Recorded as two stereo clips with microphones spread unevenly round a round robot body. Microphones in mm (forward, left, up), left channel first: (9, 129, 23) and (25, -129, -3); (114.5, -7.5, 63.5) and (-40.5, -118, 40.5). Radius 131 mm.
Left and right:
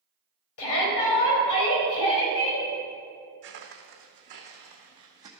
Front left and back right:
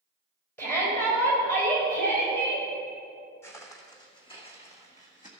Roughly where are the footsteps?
Ahead right.